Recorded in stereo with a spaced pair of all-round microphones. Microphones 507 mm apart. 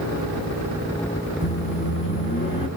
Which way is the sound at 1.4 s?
20° left (ahead or behind).